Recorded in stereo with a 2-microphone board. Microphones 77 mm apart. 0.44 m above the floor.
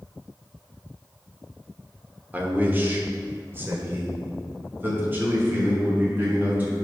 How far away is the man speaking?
About 1.1 m.